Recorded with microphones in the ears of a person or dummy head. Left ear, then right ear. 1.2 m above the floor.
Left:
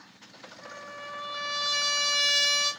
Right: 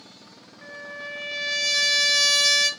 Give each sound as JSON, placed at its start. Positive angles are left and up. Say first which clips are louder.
{"t": 0.6, "sound": "a trumpet", "louder": "right 5 dB", "side_deg": -80, "distance_m": 0.7}